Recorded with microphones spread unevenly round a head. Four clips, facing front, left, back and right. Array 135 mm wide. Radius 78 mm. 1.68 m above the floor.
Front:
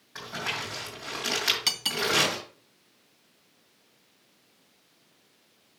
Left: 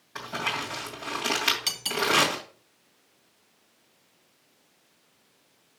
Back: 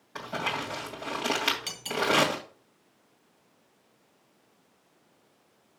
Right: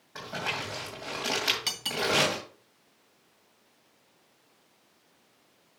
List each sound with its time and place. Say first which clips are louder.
0.1 s crumpling: left 3 dB, back 3 dB; 165° right, 2.5 m
1.7 s cutlery clinking: left 2 dB, back 4 dB; 5° left, 2 m